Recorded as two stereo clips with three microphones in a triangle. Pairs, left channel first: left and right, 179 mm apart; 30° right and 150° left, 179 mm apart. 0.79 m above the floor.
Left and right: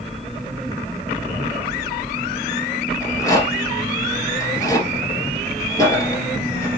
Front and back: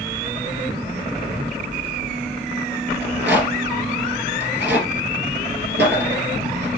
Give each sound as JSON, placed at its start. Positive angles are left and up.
{"t": 3.0, "sound": "a rattle", "azimuth_deg": 160, "distance_m": 2.5}